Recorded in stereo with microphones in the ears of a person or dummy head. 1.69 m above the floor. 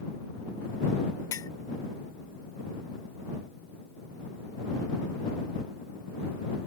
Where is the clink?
20° left (ahead or behind).